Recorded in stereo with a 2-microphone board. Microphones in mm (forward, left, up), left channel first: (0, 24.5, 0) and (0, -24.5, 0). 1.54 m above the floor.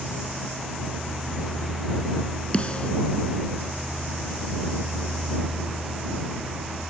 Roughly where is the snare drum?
Left.